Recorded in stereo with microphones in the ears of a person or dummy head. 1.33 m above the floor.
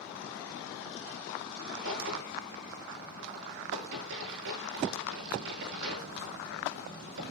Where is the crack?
75° right (ahead or behind), 9 m.